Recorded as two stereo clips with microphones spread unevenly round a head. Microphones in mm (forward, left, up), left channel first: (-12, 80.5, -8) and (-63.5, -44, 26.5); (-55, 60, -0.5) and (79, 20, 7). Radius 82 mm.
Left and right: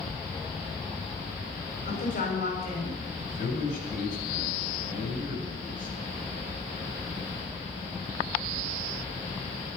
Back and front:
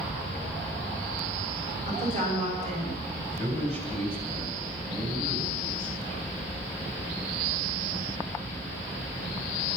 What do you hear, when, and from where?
1.9 s a woman speaking: 20° left, 6.5 m
3.2 s a man speaking: 25° left, 7.5 m